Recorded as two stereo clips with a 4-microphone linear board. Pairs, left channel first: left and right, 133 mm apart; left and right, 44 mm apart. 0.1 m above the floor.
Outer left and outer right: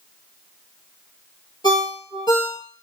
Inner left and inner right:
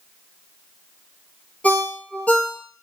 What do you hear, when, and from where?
1.6 s a ringtone: 35° left (ahead or behind), 0.8 m